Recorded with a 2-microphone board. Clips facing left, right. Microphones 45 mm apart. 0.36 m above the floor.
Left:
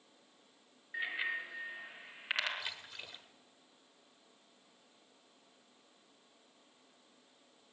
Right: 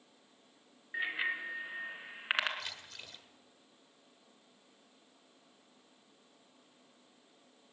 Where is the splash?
15° left (ahead or behind), 1.4 m.